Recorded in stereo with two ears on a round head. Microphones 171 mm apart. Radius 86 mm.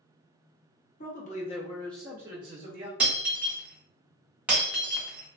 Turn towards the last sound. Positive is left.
turn(degrees=-5)  # may be behind; listen again after turning